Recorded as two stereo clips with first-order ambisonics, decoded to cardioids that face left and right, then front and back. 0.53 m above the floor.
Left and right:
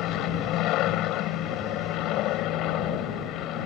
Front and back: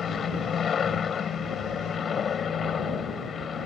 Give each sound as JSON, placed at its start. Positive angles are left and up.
{"t": 0.0, "sound": "an aircraft", "azimuth_deg": 60}